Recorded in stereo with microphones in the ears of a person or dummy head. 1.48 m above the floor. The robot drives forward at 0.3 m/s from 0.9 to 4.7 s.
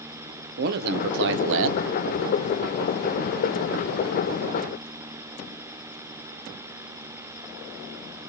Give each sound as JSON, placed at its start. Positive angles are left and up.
{"t": 0.6, "sound": "a man speaking", "side_deg": -50, "distance_m": 0.6}